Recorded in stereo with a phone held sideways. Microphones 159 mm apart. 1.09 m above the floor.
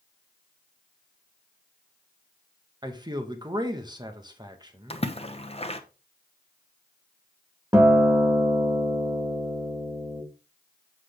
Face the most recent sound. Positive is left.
turn(degrees=-20)  # may be behind; listen again after turning